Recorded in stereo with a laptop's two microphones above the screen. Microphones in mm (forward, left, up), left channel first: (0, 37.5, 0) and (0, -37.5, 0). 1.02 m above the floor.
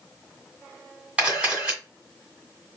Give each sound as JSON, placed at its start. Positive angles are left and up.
{"t": 1.2, "sound": "a camera shutter", "side_deg": -15, "distance_m": 2.0}